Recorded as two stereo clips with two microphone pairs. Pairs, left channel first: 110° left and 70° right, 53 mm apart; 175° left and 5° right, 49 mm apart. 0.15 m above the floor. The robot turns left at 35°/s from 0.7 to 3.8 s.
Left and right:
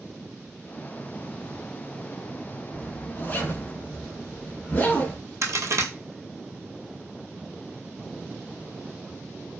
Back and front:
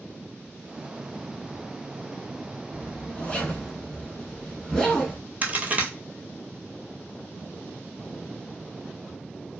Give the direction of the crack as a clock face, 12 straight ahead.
2 o'clock.